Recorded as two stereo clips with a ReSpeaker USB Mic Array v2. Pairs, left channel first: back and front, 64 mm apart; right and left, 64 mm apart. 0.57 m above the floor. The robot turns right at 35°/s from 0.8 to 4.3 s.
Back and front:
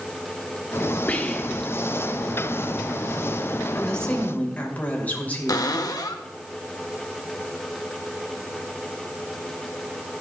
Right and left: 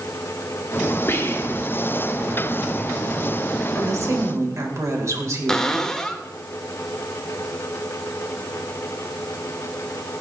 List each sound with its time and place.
1.1 s whispering: 120° right, 1.3 m; by 1.8 s 100° right, 1.3 m
3.8 s a woman speaking: 100° left, 2.5 m; by 5.8 s 120° left, 2.5 m
5.5 s a cupboard door: 170° right, 0.9 m